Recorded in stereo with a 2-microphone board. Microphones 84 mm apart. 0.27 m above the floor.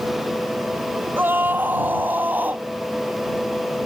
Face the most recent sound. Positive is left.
turn(degrees=-20)  # may be behind; listen again after turning